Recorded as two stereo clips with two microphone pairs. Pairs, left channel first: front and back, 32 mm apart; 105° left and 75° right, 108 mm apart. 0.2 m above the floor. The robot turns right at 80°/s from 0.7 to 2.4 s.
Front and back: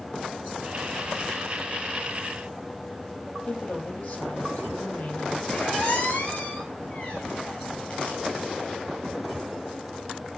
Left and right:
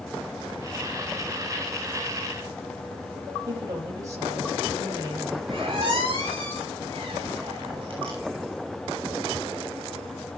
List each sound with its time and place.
3.5 s a woman speaking: 15° right, 7 m
5.5 s a squeak: 35° right, 7 m